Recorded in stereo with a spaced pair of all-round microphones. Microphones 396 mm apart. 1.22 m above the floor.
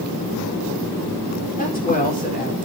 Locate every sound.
1.6 s a woman speaking: 20° left (ahead or behind), 4.5 m